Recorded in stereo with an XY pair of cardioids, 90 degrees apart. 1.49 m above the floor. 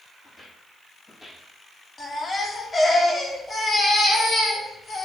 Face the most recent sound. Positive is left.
turn(degrees=35)